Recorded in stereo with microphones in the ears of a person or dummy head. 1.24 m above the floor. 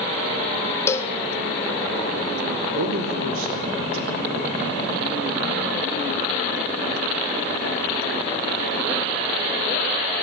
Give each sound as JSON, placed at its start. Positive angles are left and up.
{"t": 0.9, "sound": "a cowbell", "side_deg": 25, "distance_m": 1.6}
{"t": 2.7, "sound": "a man speaking", "side_deg": -80, "distance_m": 4.5}